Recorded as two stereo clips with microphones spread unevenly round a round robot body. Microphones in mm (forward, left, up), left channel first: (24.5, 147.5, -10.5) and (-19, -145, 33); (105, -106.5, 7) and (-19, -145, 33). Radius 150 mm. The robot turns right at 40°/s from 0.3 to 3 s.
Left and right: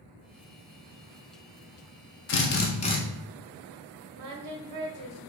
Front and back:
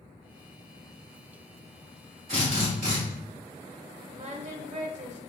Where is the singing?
125° right, 0.7 m.